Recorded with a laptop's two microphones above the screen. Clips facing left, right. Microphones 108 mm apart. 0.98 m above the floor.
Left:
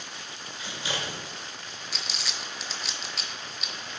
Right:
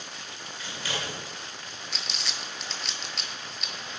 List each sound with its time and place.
0.6 s scissors: 20° left (ahead or behind), 1.9 m
1.9 s crumpling: centre (ahead or behind), 0.9 m